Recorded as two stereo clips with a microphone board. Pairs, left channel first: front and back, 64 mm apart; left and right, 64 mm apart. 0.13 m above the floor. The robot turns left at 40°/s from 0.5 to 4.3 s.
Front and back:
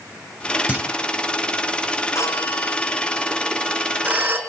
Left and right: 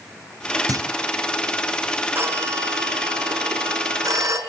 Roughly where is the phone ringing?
Ahead right.